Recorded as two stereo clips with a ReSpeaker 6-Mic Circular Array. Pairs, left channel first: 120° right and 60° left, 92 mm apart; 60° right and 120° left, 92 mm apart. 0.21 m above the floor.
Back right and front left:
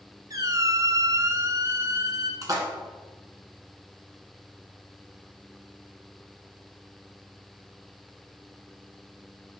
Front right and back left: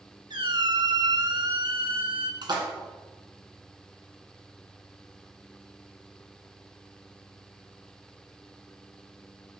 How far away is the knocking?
No knocking in this recording.